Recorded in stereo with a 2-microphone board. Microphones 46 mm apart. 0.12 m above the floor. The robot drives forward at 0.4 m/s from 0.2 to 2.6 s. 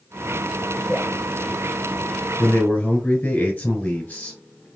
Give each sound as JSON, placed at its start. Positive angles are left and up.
{"t": 0.9, "sound": "dripping", "side_deg": 25, "distance_m": 2.0}
{"t": 2.4, "sound": "a man speaking", "side_deg": 30, "distance_m": 1.5}